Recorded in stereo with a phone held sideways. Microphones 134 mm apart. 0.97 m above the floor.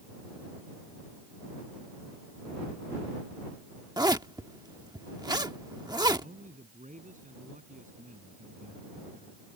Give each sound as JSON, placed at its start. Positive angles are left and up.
{"t": 4.0, "sound": "a zipper", "side_deg": -30}
{"t": 6.2, "sound": "a man speaking", "side_deg": -70}